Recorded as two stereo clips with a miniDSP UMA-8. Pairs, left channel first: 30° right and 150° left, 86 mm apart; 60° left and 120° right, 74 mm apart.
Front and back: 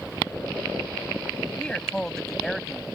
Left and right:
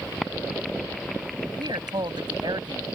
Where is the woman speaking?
110° right; by 2.9 s 120° right.